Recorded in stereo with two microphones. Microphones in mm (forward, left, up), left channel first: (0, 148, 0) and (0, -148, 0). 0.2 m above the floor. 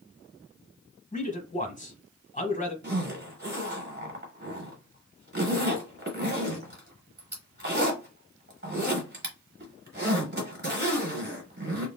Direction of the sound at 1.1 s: 25° left (ahead or behind).